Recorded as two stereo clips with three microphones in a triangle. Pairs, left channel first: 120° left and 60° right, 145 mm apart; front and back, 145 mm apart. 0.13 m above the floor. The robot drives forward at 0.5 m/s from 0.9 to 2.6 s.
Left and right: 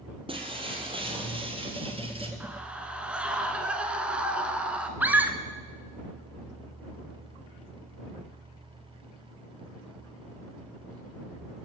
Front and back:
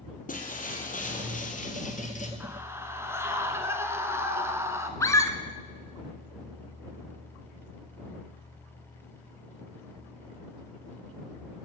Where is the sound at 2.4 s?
125° right, 1.1 m; by 4.9 s 130° right, 1.2 m.